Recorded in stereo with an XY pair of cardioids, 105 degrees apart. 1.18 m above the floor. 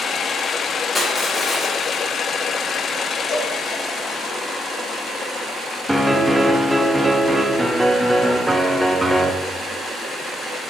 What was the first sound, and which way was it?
Crushing, 20° left.